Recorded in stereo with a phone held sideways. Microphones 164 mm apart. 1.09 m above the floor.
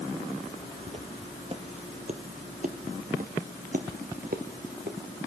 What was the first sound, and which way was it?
Footsteps, 35° right (ahead or behind).